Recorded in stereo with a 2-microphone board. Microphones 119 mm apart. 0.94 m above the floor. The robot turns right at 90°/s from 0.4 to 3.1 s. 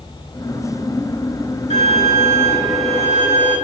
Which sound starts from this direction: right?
A violin, at 1.7 s.